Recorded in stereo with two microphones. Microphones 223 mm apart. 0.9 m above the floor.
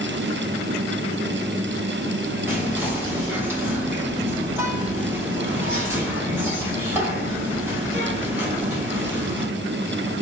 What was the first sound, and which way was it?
Whispering, 10° right (ahead or behind).